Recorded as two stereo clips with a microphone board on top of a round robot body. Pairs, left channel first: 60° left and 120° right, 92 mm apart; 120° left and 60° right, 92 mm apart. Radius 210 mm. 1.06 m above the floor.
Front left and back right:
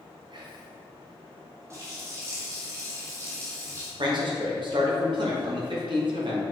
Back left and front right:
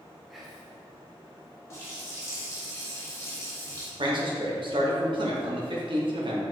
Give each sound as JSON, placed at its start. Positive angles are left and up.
{"t": 0.3, "sound": "whispering", "azimuth_deg": -150, "distance_m": 1.3}
{"t": 1.7, "sound": "a running tap", "azimuth_deg": 180, "distance_m": 2.0}
{"t": 4.0, "sound": "a man speaking", "azimuth_deg": -90, "distance_m": 2.5}